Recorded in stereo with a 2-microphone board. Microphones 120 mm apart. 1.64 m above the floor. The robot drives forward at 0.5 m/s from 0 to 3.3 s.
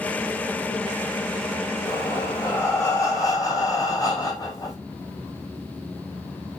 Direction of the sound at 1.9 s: 20° left (ahead or behind).